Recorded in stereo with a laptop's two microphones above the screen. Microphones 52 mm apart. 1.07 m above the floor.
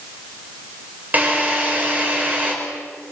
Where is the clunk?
I don't hear a clunk.